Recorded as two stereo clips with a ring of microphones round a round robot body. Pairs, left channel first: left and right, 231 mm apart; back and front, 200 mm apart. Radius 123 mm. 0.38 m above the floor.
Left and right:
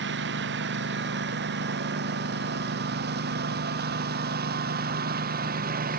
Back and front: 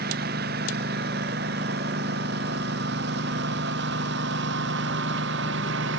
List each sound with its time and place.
0.0 s a lawn mower: 50° right; by 6.0 s 40° right